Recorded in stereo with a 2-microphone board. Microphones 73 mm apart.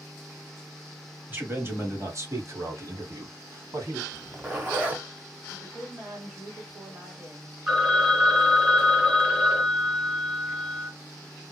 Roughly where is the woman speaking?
Right.